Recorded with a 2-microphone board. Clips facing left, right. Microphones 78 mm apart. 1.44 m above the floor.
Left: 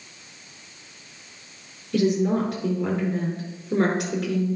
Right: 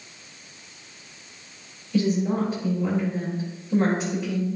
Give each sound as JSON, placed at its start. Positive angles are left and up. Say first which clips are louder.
{"t": 1.9, "sound": "a woman speaking", "louder": "left 2 dB", "side_deg": 70, "distance_m": 4.5}